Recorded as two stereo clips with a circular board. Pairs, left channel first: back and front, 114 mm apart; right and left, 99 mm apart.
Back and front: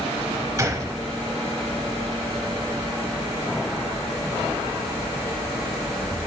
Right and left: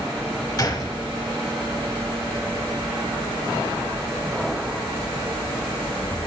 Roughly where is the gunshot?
Ahead right.